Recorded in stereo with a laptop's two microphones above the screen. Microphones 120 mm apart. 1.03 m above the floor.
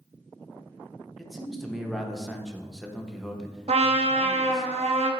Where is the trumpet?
55° right (ahead or behind), 0.6 m.